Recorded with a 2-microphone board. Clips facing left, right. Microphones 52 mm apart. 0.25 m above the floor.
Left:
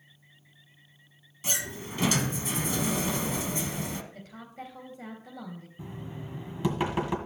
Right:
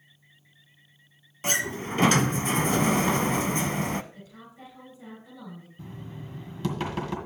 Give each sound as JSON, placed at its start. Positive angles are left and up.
{"t": 1.4, "sound": "a sliding door", "side_deg": -50, "distance_m": 0.5}
{"t": 4.1, "sound": "a woman speaking", "side_deg": 60, "distance_m": 5.0}
{"t": 5.8, "sound": "knocking", "side_deg": 15, "distance_m": 1.8}